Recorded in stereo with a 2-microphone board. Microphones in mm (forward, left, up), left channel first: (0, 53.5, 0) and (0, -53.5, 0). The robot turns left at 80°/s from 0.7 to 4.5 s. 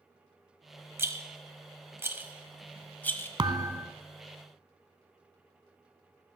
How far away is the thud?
About 0.6 m.